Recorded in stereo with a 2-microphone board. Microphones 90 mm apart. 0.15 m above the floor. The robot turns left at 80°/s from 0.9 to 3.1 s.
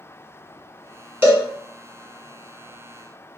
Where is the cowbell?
20° right (ahead or behind), 1.1 m; by 1.4 s 15° right (ahead or behind), 1.1 m.